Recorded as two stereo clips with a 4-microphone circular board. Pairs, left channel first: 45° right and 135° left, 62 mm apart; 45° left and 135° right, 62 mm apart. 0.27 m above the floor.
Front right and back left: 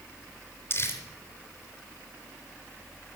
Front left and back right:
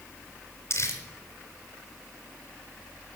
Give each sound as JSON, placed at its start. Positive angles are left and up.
{"t": 0.7, "sound": "crumpling", "azimuth_deg": 5, "distance_m": 3.0}